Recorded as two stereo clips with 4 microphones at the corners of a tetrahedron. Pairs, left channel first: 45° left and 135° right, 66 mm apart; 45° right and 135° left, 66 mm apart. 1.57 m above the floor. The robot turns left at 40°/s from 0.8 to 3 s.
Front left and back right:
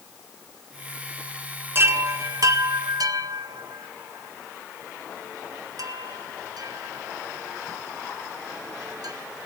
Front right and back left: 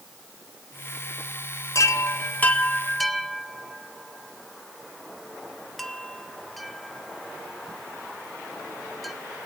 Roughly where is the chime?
Right.